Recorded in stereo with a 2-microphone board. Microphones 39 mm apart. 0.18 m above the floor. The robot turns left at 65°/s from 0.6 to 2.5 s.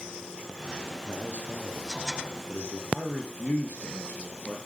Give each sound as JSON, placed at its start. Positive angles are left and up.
{"t": 1.0, "sound": "a man speaking", "azimuth_deg": 150, "distance_m": 2.5}
{"t": 2.9, "sound": "a man speaking", "side_deg": 45, "distance_m": 3.5}